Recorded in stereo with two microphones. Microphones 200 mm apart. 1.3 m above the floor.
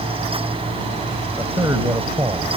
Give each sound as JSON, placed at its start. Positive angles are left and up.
{"t": 1.4, "sound": "a man speaking", "side_deg": -15}